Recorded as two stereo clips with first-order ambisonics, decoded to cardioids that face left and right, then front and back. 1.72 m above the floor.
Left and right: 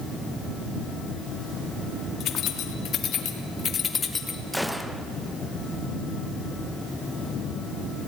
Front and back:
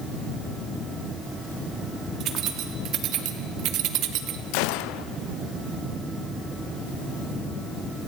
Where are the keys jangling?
135° left, 2.5 m; by 4.4 s 165° left, 1.4 m.